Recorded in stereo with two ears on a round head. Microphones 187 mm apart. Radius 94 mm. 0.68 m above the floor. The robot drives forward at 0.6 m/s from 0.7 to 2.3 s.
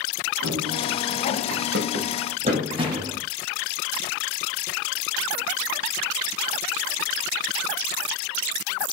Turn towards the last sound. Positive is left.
turn(degrees=-20)  # may be behind; listen again after turning